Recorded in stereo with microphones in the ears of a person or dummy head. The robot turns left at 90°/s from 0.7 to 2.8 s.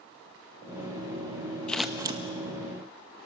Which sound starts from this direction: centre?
Scissors, at 1.7 s.